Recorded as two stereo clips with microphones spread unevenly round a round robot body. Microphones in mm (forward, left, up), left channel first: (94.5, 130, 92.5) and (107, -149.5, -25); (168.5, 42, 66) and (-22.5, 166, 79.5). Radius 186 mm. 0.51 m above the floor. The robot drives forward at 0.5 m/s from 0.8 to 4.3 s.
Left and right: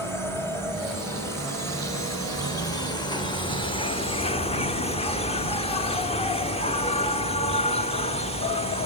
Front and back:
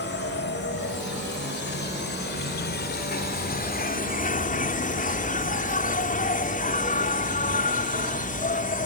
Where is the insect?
5° left; by 8.9 s 10° left.